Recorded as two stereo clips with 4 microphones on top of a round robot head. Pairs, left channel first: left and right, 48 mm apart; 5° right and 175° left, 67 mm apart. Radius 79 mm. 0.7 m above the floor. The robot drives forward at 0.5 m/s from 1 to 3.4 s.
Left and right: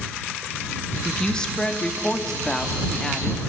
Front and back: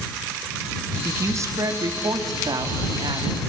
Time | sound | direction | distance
1.1 | a woman speaking | 155° left | 1.4 m